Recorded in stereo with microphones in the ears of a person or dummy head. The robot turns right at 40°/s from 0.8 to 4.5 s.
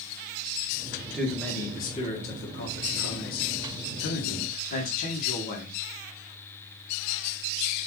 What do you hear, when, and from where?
1.1 s a man speaking: straight ahead, 1.4 m; by 5.8 s 135° left, 1.4 m